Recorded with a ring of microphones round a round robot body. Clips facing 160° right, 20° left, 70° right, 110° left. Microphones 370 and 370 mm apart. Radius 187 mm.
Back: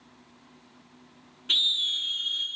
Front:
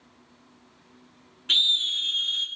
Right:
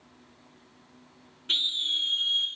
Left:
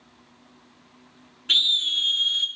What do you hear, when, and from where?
1.5 s a scream: 70° left, 0.9 m